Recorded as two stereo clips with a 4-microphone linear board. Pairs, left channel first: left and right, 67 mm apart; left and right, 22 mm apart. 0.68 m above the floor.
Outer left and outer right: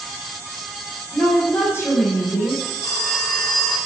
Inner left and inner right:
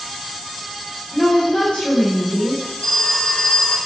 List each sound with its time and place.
1.1 s a woman speaking: 45° left (ahead or behind), 3.5 m
2.8 s a phone ringing: 60° left (ahead or behind), 5.5 m